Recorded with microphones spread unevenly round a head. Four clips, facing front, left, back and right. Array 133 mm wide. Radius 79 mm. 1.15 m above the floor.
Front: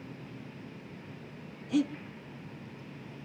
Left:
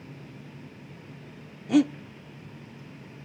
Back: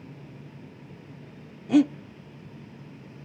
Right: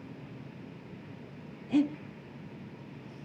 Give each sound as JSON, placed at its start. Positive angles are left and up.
{"t": 1.7, "sound": "breathing", "azimuth_deg": 135, "distance_m": 0.9}